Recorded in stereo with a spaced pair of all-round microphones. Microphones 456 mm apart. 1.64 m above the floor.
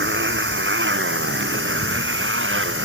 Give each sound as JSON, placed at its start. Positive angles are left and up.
{"t": 0.0, "sound": "a motorcycle", "side_deg": -25}